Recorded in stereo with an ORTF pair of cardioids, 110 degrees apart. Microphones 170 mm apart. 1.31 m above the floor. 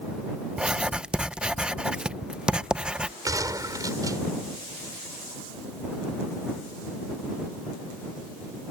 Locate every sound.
0.6 s writing: 5° right
3.2 s a gunshot: 20° right